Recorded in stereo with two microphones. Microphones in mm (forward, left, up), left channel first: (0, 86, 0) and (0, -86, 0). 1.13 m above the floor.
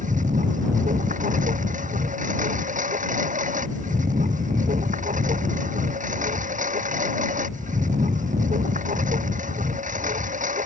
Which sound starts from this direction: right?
A lawn mower, at 0.0 s.